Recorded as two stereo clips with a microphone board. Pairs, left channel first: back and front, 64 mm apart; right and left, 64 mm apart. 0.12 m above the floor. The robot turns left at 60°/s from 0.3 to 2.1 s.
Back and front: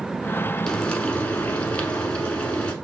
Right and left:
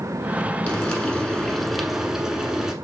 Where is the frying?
115° right, 1.1 m; by 2.7 s 155° left, 1.1 m.